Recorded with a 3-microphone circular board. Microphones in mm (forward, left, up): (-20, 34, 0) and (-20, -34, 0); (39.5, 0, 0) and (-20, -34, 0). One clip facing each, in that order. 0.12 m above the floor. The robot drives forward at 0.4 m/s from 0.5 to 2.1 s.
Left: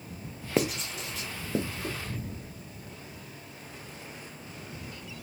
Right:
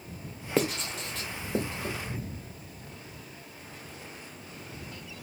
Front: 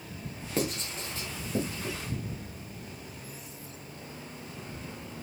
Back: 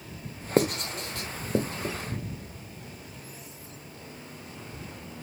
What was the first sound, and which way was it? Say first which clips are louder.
Writing: even, back 7 dB; 175° left.